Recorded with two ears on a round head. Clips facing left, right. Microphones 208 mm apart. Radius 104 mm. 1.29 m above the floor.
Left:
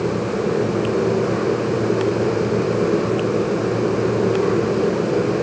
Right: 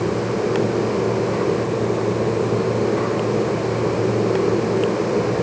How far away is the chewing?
No chewing in this recording.